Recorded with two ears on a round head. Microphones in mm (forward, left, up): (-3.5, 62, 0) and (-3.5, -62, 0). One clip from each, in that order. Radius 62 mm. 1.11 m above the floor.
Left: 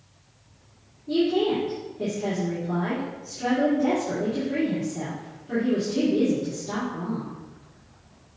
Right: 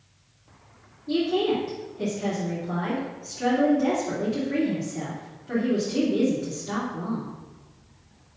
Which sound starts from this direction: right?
A woman speaking, at 1.1 s.